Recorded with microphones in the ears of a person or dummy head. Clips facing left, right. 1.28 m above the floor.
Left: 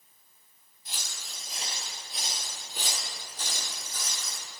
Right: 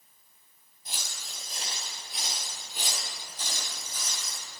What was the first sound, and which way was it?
Footsteps, 20° right (ahead or behind).